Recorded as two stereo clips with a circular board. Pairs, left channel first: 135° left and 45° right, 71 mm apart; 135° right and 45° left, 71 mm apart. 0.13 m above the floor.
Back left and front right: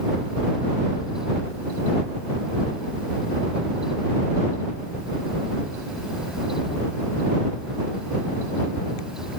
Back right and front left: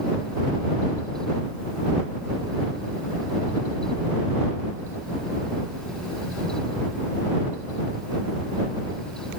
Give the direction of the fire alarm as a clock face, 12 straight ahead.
No fire alarm in this recording.